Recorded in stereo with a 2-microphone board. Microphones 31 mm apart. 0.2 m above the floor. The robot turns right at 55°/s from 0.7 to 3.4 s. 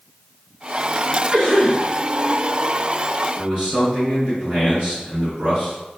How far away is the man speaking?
About 1.8 m.